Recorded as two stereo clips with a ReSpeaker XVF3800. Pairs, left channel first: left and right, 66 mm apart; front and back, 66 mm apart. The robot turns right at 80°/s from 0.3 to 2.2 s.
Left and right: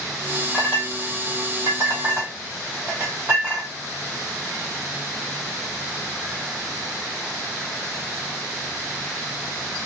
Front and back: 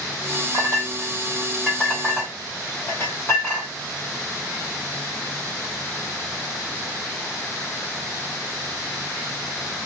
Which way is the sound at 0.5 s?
175° right.